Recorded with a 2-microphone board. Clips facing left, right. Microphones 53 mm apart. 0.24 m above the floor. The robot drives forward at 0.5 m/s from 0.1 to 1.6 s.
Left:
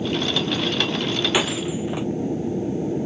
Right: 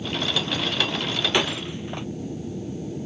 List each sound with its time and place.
0.0 s an aircraft: 35° left (ahead or behind)
1.3 s breaking glass: 5° left (ahead or behind)